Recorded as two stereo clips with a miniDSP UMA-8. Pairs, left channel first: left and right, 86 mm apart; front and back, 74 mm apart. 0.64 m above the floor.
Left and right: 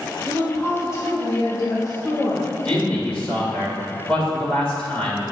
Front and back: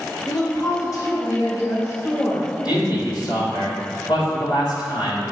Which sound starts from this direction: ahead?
A man speaking, at 2.6 s.